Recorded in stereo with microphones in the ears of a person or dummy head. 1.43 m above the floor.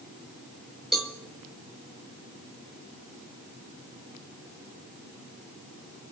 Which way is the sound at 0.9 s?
Centre (ahead or behind).